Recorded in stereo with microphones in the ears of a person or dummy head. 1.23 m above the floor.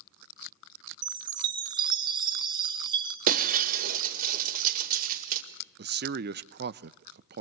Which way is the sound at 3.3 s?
50° right (ahead or behind).